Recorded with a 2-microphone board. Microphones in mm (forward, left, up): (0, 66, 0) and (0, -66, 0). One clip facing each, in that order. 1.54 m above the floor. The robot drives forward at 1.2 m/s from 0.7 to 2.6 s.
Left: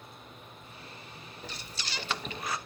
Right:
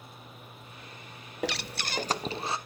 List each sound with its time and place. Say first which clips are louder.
1.4 s breathing: right 12 dB; 70° right (ahead or behind), 0.7 m; by 2.6 s 25° right (ahead or behind), 1.5 m